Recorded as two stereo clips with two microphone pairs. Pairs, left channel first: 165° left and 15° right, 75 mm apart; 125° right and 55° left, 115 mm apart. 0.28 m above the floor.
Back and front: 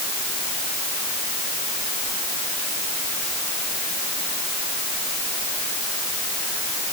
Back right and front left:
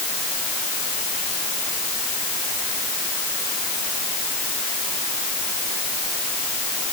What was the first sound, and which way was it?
Only background noise.